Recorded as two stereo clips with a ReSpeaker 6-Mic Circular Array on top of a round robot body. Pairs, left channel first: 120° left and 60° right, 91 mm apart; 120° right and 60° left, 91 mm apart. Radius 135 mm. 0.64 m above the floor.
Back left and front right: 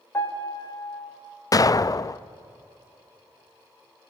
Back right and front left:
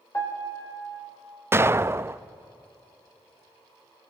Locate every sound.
0.1 s a piano: 175° right, 3 m
1.5 s an explosion: 105° left, 0.5 m